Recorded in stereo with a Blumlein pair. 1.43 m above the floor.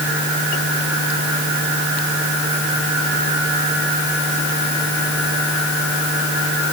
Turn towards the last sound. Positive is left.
No sound to turn to.